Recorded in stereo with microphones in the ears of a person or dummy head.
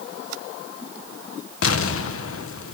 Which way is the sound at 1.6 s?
60° left (ahead or behind).